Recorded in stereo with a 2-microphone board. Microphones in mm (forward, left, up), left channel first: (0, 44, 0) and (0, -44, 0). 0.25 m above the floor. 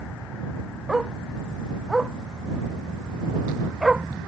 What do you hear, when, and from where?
0.9 s a dog barking: 5° right (ahead or behind)